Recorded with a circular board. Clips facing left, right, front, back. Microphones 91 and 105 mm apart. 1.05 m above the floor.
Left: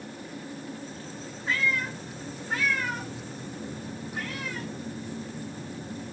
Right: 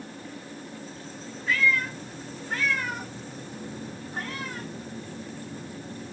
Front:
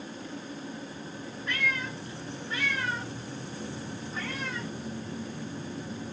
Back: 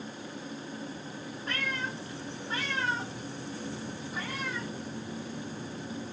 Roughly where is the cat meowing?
Behind left.